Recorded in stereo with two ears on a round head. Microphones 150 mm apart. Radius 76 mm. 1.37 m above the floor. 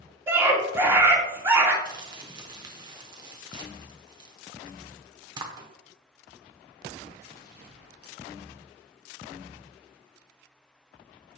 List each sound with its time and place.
0.3 s a scream: 15° right (ahead or behind), 2.5 m
1.9 s crumpling: 25° right (ahead or behind), 1.1 m